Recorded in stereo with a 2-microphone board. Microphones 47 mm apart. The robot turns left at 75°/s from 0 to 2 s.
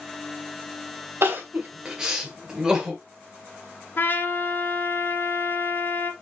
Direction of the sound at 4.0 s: 50° left (ahead or behind).